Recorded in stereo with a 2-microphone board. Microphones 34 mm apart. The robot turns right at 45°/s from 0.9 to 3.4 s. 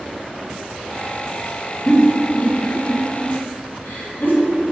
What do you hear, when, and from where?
1.9 s a giggle: 20° left (ahead or behind), 3 m; by 4.3 s 80° left, 3 m